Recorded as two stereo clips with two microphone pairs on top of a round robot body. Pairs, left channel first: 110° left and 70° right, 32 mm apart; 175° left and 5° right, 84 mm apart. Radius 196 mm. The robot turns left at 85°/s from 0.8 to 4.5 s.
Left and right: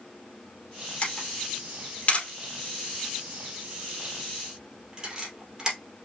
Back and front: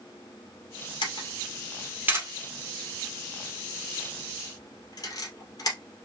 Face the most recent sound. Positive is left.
turn(degrees=-140)